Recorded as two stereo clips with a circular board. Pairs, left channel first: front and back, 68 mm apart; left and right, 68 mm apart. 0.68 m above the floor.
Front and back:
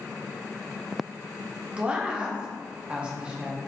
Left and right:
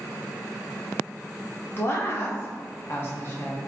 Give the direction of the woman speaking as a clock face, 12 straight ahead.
8 o'clock.